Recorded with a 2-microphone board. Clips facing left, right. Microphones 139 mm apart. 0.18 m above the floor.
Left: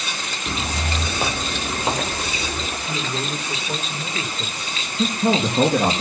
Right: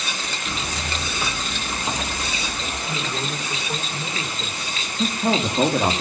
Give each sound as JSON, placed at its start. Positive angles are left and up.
{"t": 0.5, "sound": "footsteps", "side_deg": 35, "distance_m": 1.3}
{"t": 2.9, "sound": "a man speaking", "side_deg": 25, "distance_m": 3.5}
{"t": 5.0, "sound": "a man speaking", "side_deg": 50, "distance_m": 4.0}